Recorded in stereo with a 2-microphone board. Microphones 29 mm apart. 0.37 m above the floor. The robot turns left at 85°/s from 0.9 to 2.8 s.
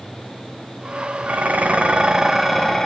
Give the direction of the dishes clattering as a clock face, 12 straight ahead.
3 o'clock.